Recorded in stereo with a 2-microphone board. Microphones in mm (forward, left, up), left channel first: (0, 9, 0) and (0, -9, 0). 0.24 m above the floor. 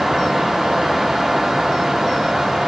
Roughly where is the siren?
I don't hear a siren.